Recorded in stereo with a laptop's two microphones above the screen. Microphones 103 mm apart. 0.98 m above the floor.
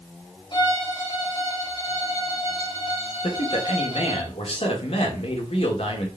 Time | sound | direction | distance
0.5 | a violin | 50° left (ahead or behind) | 2.5 m
3.2 | a man speaking | 75° left (ahead or behind) | 2.5 m